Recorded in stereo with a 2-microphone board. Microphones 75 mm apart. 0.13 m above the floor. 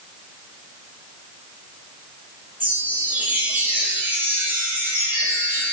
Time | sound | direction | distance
2.6 | a chime | 15° right (ahead or behind) | 2 m